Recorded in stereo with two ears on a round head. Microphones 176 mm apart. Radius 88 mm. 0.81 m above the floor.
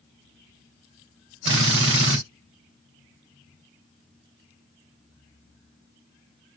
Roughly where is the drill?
Right.